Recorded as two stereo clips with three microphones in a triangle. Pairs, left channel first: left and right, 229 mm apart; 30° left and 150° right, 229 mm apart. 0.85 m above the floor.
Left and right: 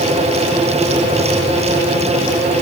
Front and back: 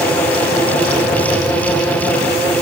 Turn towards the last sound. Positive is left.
No sound to turn to.